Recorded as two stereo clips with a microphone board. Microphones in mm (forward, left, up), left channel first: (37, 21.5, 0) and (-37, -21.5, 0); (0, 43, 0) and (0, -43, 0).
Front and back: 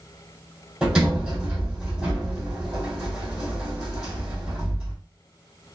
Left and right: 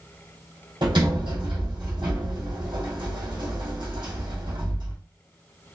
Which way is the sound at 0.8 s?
65° right.